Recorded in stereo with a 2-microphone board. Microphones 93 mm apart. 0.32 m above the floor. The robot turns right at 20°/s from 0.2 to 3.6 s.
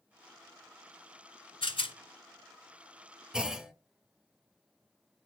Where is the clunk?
5° right (ahead or behind), 0.9 m.